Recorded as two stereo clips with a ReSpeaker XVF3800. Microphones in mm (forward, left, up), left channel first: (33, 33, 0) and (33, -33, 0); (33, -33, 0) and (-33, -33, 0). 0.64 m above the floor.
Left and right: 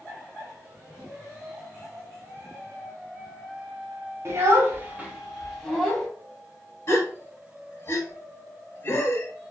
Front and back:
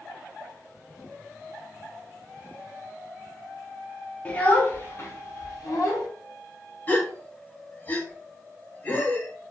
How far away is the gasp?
About 0.7 m.